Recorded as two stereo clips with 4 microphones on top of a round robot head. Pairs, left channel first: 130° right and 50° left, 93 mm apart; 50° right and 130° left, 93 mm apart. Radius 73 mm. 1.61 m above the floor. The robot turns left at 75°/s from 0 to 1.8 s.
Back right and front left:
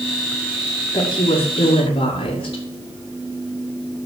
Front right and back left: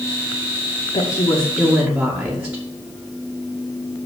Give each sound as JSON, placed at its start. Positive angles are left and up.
{"t": 0.9, "sound": "a woman speaking", "azimuth_deg": -80, "distance_m": 2.0}